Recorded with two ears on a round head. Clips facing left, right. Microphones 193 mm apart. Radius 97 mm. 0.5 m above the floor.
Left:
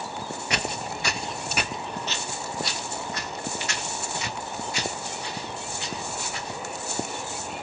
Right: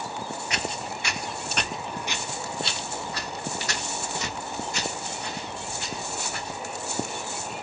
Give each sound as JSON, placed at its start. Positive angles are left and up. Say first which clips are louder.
{"t": 0.5, "sound": "footsteps", "louder": "left 4 dB", "side_deg": 55, "distance_m": 0.7}